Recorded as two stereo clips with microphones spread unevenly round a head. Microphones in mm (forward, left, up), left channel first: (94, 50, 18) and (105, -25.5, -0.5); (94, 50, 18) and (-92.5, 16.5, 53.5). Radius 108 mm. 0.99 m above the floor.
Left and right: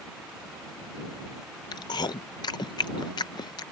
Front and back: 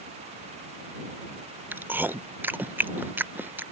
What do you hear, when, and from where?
1.7 s chewing: 100° left